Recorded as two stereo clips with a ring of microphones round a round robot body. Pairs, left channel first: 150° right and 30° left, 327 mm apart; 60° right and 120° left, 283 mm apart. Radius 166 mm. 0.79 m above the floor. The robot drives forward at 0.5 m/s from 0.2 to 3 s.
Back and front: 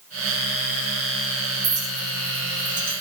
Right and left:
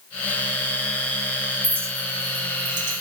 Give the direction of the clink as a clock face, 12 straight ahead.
11 o'clock.